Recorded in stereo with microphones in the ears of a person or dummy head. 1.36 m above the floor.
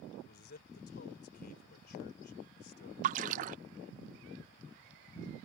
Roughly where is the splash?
Right.